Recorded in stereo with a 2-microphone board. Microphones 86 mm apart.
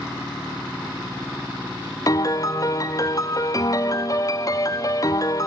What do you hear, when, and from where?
2.1 s a piano: 40° left (ahead or behind), 0.6 m